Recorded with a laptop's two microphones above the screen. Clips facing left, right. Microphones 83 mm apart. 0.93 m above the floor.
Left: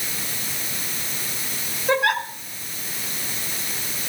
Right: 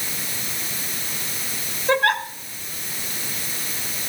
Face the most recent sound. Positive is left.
turn(degrees=15)  # may be behind; listen again after turning